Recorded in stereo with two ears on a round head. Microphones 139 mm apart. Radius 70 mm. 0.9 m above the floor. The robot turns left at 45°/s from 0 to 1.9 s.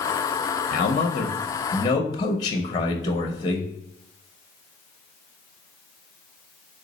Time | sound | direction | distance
0.7 | a man speaking | 85° left | 0.6 m